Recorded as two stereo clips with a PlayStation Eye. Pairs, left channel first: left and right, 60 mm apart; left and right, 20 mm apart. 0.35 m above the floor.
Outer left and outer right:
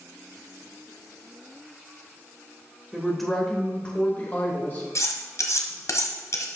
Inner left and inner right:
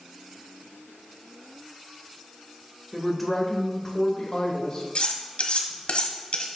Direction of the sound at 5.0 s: 60° left (ahead or behind).